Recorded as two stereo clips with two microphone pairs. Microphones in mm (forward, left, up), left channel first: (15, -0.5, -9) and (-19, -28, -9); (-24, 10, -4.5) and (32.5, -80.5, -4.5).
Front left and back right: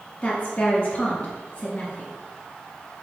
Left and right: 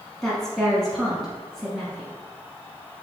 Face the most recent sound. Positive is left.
turn(degrees=35)